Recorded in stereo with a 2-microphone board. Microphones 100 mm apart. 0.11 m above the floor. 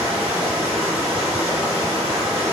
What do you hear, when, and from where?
0.0 s running water: 15° right (ahead or behind), 1.9 m